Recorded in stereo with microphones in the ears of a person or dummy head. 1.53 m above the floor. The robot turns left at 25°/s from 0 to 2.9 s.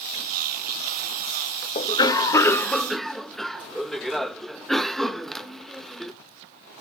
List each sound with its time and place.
1.8 s a cough: 30° left (ahead or behind), 0.7 m; by 6.1 s 5° left (ahead or behind), 0.7 m